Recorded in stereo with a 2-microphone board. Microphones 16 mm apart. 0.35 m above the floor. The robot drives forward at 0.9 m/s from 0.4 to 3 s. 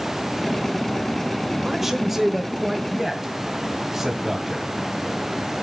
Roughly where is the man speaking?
Centre.